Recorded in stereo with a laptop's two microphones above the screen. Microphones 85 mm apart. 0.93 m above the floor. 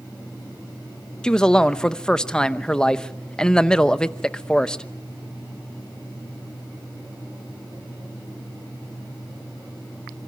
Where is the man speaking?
10° left (ahead or behind), 0.8 m.